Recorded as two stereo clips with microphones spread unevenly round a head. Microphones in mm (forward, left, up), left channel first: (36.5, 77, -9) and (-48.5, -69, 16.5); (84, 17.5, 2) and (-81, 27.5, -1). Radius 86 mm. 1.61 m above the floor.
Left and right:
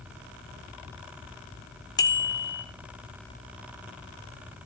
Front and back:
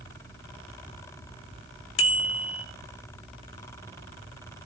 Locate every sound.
2.0 s a bicycle bell: 10° right, 3 m